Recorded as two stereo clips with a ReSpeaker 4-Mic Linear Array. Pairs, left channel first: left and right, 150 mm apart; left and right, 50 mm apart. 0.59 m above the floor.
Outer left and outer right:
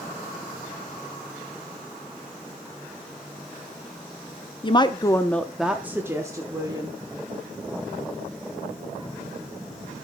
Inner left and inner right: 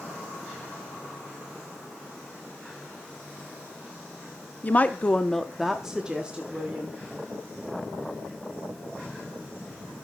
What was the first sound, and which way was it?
A woman speaking, 30° left (ahead or behind).